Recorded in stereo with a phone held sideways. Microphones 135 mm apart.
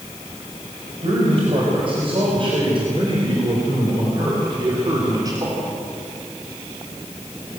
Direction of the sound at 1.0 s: 45° right (ahead or behind).